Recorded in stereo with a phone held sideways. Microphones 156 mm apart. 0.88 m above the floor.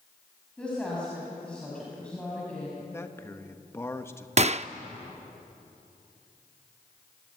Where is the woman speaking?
5° left (ahead or behind), 5.5 m.